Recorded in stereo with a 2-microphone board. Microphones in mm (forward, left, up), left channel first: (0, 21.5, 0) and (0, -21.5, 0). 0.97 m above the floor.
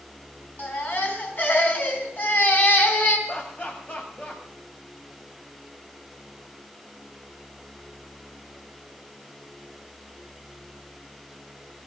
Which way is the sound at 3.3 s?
35° left (ahead or behind).